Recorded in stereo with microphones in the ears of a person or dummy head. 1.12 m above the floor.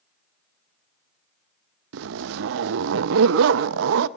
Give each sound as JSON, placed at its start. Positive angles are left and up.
{"t": 1.9, "sound": "a zipper", "side_deg": -70, "distance_m": 0.5}